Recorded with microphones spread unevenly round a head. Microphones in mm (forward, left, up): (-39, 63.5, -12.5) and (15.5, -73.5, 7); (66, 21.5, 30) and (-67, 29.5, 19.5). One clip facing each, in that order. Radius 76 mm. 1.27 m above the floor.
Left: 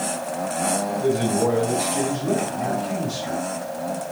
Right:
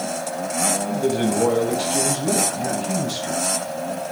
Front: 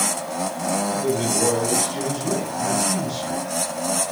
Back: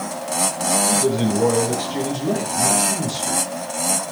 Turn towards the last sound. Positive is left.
turn(degrees=-120)